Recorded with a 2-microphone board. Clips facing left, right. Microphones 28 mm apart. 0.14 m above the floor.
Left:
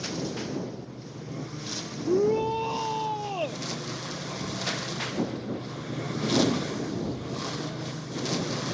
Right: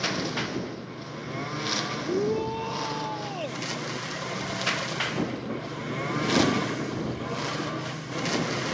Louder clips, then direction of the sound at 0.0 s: Right 4 dB; 55° right (ahead or behind).